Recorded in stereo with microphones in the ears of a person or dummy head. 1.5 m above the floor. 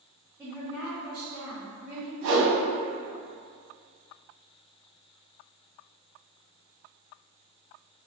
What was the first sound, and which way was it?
A woman speaking, 5° left (ahead or behind).